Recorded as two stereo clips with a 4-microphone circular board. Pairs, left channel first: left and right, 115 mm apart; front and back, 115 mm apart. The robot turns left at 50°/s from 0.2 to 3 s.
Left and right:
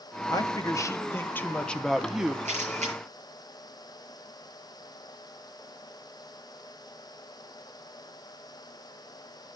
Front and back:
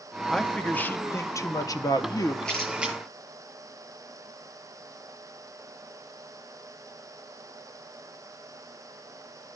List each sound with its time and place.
0.3 s a man speaking: 85° left, 0.6 m; by 2.4 s 20° right, 0.6 m
2.5 s a camera shutter: 80° right, 7 m; by 3.0 s 105° right, 7 m